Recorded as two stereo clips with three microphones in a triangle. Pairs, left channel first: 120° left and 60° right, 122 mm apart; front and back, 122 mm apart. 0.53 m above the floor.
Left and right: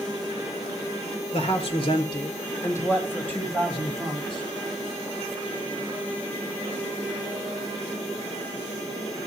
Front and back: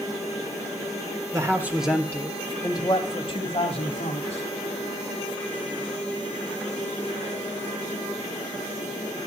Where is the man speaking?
125° left, 1.7 m; by 4.5 s 35° left, 4.5 m.